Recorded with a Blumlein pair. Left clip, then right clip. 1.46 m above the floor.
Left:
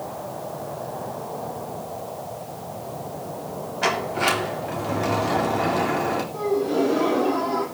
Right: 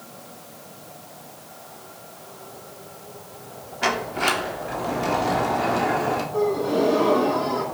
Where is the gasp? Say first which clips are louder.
Right 1 dB; 10° right, 8.5 m.